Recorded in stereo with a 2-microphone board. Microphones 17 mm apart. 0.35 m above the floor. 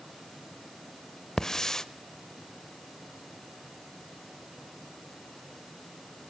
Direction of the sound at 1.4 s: 25° left (ahead or behind).